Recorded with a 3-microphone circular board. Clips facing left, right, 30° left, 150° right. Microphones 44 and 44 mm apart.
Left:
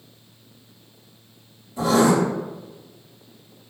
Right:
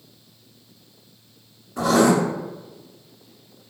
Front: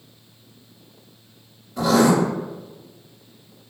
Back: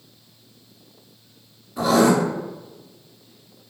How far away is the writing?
About 1.3 m.